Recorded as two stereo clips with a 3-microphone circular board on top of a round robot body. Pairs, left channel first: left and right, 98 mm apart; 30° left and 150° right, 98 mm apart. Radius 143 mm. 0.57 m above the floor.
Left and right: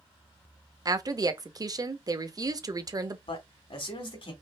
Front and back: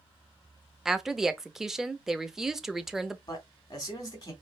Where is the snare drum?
No snare drum in this recording.